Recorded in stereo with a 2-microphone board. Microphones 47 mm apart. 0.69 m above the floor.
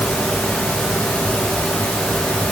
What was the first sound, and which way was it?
Only background noise.